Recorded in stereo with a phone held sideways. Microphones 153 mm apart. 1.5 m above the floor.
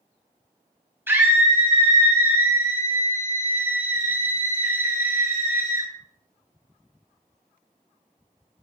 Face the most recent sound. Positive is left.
turn(degrees=-15)  # may be behind; listen again after turning